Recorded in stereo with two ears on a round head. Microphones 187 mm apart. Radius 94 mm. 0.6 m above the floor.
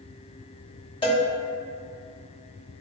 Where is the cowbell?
25° left (ahead or behind), 1.2 m.